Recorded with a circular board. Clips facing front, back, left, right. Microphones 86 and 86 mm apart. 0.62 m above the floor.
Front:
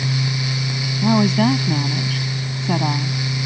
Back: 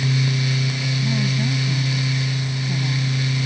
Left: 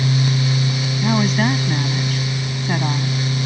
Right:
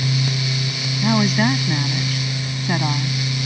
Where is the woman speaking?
Straight ahead.